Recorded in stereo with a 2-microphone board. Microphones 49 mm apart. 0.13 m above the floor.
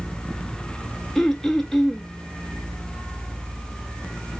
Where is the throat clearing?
10° left (ahead or behind), 0.9 m.